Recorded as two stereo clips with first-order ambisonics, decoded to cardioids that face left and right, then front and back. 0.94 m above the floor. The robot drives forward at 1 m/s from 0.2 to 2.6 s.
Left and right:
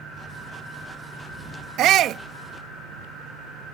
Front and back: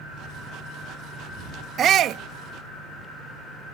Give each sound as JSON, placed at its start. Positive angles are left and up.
{"t": 1.8, "sound": "a shout", "azimuth_deg": -130}